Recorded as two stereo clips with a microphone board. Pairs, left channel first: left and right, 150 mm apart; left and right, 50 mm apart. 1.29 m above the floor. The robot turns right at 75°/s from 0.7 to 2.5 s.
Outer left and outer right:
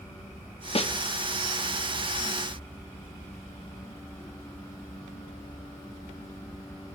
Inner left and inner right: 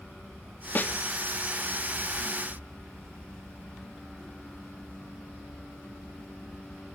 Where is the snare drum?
40° left (ahead or behind), 0.8 m.